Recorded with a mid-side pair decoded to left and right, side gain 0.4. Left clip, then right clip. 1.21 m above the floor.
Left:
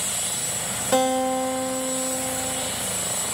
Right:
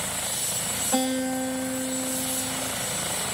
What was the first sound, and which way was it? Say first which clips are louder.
A guitar: left 7 dB; 65° left.